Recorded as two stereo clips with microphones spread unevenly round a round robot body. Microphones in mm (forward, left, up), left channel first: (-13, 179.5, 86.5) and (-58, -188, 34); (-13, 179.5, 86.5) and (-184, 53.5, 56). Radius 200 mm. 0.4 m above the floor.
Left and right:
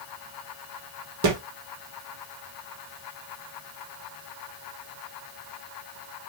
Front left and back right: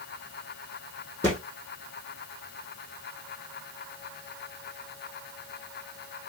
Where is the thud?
45° right, 3.5 m.